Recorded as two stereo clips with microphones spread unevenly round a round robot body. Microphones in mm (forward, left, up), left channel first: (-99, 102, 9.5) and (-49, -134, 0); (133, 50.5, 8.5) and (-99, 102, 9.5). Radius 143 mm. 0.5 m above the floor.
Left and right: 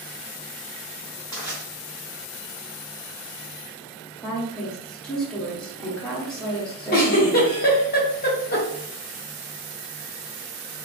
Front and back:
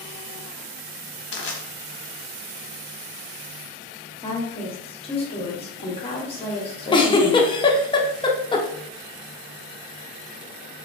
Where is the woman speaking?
15° left, 0.8 m.